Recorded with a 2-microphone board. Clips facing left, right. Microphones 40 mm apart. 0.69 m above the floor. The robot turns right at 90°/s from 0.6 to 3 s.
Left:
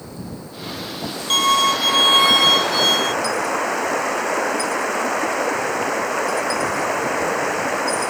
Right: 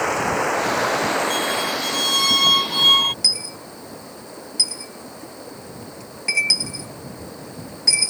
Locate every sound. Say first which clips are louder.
0.0 s running water: right 14 dB; 105° right; by 8.1 s 110° left
1.3 s a violin: left 6 dB; 70° left; by 3.1 s 135° right
3.2 s a dropped coin: left 8 dB; 80° right